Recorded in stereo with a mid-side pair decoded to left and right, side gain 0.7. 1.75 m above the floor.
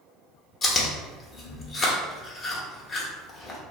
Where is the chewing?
30° left, 0.9 m.